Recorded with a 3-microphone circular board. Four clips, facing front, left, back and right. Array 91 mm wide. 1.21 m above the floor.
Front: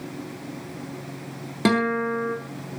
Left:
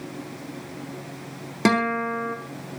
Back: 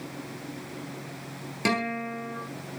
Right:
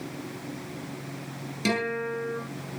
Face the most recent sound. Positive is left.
turn(degrees=65)